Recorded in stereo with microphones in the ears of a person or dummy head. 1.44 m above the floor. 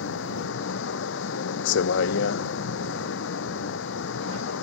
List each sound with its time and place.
0.0 s a vehicle: 65° left (ahead or behind)